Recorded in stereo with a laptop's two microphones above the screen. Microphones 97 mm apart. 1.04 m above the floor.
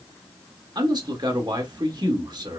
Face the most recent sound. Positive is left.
turn(degrees=-45)  # may be behind; listen again after turning